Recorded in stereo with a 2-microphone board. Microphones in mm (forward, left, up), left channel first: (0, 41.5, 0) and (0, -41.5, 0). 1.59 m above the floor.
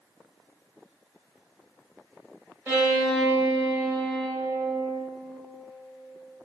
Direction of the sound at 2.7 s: 20° right (ahead or behind).